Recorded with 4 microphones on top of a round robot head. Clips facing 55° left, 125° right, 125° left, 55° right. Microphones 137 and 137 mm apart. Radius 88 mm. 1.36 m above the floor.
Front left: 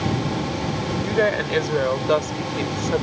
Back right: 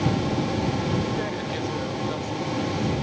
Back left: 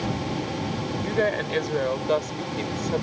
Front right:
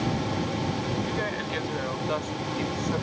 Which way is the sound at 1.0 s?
85° left.